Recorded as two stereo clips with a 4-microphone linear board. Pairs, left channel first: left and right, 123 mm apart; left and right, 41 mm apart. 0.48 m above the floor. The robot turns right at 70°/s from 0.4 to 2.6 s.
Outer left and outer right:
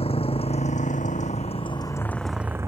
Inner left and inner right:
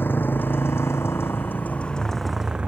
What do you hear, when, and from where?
0.0 s a motorcycle: 50° left (ahead or behind); by 2.7 s 20° right (ahead or behind)